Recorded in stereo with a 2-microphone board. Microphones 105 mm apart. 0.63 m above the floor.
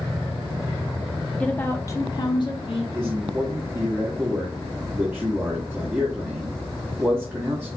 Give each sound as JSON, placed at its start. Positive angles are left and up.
{"t": 1.4, "sound": "a woman speaking", "side_deg": 10, "distance_m": 0.8}
{"t": 3.0, "sound": "a man speaking", "side_deg": -20, "distance_m": 1.1}